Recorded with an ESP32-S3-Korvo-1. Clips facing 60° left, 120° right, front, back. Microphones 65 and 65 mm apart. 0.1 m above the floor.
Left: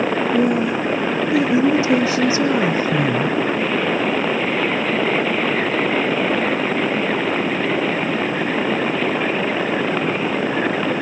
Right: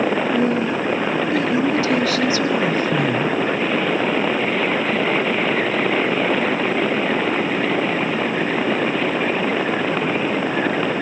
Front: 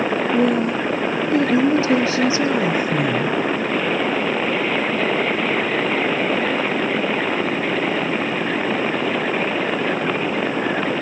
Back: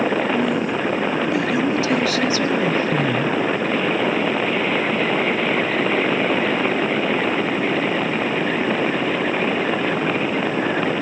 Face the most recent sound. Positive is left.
turn(degrees=75)